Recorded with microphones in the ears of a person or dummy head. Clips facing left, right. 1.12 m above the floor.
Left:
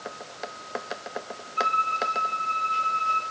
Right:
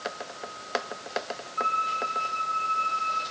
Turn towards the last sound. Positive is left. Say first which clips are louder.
# left 5 dB
turn(degrees=40)  # may be behind; listen again after turning